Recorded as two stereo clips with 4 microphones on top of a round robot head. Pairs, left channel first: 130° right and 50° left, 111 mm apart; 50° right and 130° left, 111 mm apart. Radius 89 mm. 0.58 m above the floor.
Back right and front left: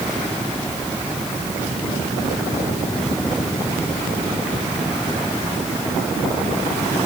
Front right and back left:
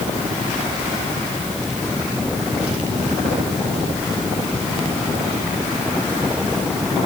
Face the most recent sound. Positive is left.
No sound to turn to.